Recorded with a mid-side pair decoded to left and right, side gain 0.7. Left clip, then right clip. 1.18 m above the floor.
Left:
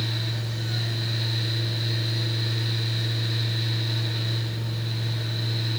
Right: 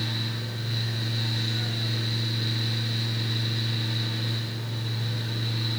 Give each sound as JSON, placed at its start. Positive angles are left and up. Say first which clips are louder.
{"t": 0.0, "sound": "a fan", "louder": "even", "azimuth_deg": 5, "distance_m": 1.7}